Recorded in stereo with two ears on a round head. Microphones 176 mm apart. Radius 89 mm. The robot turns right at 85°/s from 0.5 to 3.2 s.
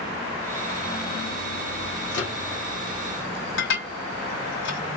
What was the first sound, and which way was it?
A microwave, 70° left (ahead or behind).